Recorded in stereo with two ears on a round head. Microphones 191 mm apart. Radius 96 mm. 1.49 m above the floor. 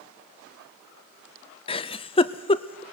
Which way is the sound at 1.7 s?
25° left (ahead or behind).